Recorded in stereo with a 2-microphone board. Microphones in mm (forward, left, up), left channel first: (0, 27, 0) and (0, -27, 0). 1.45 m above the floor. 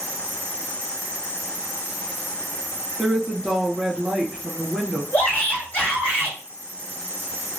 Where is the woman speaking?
15° right (ahead or behind), 1.2 m.